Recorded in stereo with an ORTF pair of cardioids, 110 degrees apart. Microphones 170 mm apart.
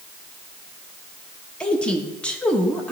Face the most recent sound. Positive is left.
turn(degrees=5)